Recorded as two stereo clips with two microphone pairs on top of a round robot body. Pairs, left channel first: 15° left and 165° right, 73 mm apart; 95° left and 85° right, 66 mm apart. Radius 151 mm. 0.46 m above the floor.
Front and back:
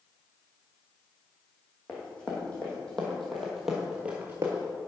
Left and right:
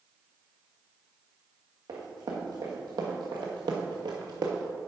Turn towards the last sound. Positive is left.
turn(degrees=-130)